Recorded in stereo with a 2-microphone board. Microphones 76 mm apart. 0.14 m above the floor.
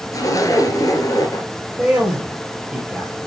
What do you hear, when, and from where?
0.1 s a zipper: 50° left (ahead or behind), 1.4 m
1.8 s a man speaking: 15° right (ahead or behind), 3 m